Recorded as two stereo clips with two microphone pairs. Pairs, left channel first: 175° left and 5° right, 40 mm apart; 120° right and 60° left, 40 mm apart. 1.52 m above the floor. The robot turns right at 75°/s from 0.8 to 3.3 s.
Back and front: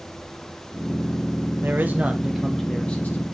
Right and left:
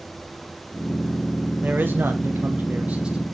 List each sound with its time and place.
1.6 s a man speaking: 20° left, 1.0 m; by 3.2 s 140° left, 1.0 m